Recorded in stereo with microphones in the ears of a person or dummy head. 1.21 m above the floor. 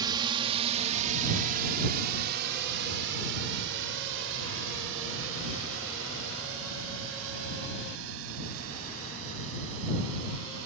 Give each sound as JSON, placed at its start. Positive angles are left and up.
{"t": 0.0, "sound": "a drone", "side_deg": -25}